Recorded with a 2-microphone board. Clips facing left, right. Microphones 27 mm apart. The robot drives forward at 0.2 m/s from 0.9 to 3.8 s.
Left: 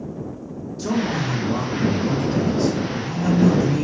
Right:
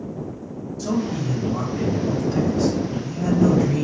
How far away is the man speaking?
About 1.2 m.